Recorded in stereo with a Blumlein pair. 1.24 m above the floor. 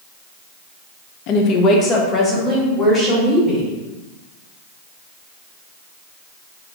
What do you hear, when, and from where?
1.3 s a woman speaking: 40° left, 0.6 m; by 3.7 s 15° left, 2 m